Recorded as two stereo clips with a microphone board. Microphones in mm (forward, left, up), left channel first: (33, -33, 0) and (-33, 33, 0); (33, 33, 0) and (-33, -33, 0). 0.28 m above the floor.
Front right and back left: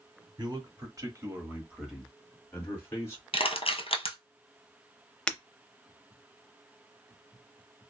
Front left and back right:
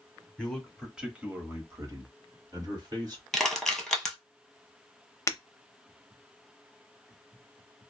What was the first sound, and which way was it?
A man speaking, 130° left.